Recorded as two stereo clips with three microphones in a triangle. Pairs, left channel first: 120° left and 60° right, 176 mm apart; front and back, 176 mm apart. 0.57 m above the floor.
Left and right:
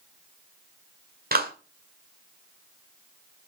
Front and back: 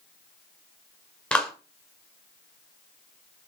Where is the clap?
85° right, 1.8 m.